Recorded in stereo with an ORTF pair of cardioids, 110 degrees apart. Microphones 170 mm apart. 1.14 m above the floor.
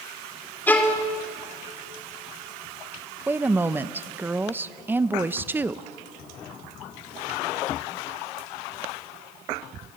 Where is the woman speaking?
15° right, 0.8 m.